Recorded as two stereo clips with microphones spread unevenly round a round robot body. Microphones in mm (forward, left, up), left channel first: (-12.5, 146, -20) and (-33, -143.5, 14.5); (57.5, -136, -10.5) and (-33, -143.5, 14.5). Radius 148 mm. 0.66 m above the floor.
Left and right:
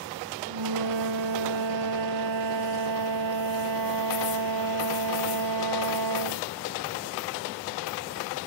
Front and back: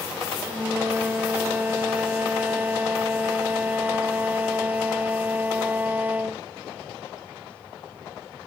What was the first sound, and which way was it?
A flute, 105° right.